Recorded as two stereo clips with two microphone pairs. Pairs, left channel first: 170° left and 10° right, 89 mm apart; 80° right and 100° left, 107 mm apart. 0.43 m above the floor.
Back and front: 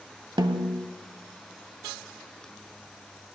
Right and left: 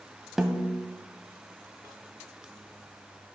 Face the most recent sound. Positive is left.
turn(degrees=15)